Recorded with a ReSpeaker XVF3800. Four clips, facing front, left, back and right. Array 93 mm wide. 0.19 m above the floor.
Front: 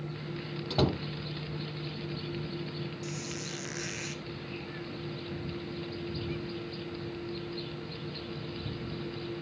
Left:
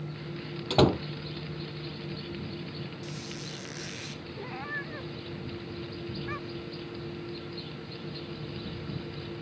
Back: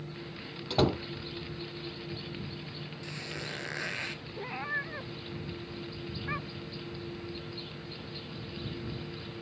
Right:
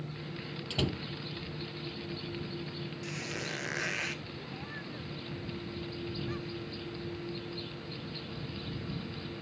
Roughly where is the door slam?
Left.